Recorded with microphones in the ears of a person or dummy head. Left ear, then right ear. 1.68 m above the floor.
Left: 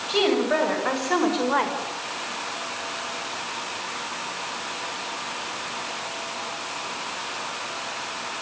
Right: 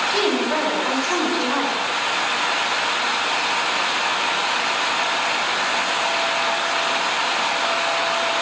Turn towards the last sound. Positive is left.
turn(degrees=25)  # may be behind; listen again after turning